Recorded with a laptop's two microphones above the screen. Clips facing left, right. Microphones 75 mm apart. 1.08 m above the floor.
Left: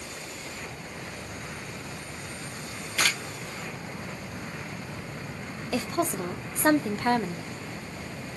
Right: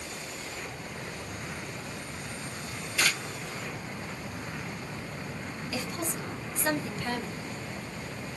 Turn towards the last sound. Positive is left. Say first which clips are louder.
# left 8 dB
turn(degrees=50)  # may be behind; listen again after turning